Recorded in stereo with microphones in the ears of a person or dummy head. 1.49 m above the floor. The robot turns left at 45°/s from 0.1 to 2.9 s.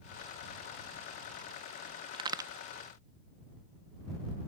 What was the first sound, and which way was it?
A crack, 30° right (ahead or behind).